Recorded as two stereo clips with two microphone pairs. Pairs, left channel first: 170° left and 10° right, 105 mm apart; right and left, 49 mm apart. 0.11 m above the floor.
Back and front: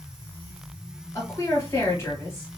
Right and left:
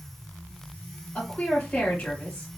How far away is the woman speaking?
About 2 m.